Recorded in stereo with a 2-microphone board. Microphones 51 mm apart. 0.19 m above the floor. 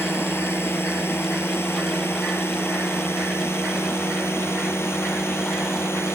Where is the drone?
45° left (ahead or behind); by 6.2 s 50° left (ahead or behind).